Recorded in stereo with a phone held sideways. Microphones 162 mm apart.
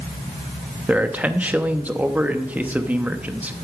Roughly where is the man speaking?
Centre.